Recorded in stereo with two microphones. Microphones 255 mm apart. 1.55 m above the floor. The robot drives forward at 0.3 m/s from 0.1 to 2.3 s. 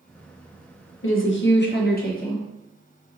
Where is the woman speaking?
55° left (ahead or behind), 0.5 m; by 2.4 s 35° left (ahead or behind), 0.7 m.